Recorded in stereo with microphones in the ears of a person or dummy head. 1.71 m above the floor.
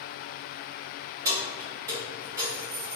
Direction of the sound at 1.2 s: 15° right (ahead or behind).